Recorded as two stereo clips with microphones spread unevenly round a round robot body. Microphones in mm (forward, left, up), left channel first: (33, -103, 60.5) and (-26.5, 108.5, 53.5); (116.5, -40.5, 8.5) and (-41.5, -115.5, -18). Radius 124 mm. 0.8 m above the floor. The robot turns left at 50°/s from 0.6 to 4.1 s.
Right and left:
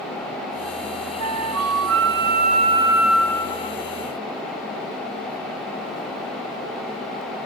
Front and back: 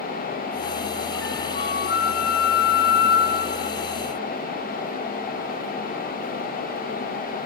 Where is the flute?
115° left; by 3.8 s 15° right.